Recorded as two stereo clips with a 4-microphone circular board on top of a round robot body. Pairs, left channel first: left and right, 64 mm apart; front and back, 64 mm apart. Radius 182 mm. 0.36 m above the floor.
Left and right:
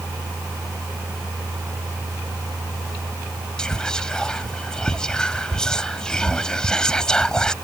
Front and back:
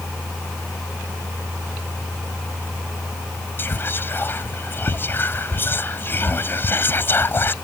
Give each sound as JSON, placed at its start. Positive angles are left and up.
{"t": 3.6, "sound": "whispering", "azimuth_deg": 20}